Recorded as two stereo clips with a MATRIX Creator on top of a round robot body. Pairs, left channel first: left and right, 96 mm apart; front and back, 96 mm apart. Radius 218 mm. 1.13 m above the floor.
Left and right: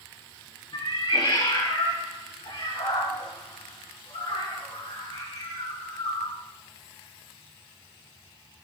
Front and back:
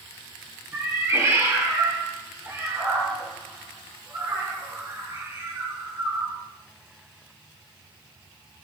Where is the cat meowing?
120° left, 6 m.